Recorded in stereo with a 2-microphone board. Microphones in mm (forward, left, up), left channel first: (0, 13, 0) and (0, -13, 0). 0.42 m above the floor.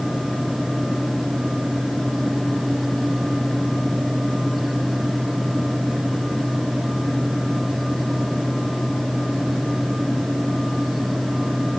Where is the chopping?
I don't hear chopping.